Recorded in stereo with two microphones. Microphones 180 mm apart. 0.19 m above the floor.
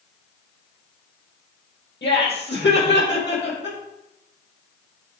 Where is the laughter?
75° left (ahead or behind), 5 m; by 3.8 s 80° left, 6.5 m.